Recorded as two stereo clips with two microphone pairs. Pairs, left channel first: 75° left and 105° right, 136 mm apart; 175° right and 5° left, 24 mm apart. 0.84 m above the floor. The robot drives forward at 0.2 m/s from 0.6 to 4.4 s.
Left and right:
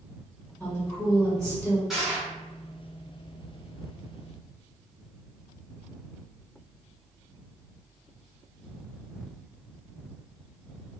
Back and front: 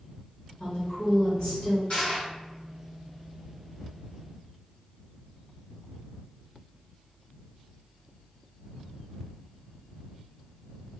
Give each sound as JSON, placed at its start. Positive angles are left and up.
{"t": 0.6, "sound": "a woman speaking", "azimuth_deg": 150, "distance_m": 1.1}
{"t": 1.9, "sound": "crushing", "azimuth_deg": 165, "distance_m": 1.2}